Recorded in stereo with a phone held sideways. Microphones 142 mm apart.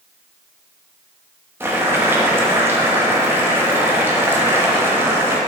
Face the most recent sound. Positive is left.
turn(degrees=-15)  # may be behind; listen again after turning